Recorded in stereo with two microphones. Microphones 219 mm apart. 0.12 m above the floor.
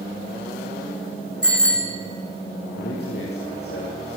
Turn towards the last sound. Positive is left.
turn(degrees=50)  # may be behind; listen again after turning